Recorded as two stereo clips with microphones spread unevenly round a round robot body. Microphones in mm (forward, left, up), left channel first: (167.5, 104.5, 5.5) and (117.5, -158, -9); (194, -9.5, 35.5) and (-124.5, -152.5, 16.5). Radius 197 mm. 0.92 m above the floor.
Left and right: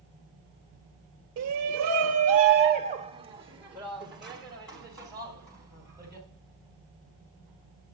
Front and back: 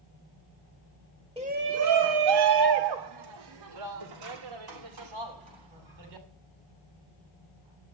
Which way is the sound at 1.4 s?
85° right.